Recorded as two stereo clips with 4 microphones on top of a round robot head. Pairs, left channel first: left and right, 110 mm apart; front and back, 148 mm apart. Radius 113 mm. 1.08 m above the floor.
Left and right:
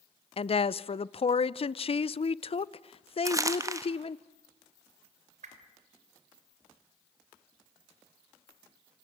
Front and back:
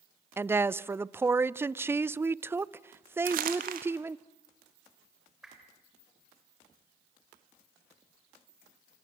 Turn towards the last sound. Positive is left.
turn(degrees=-95)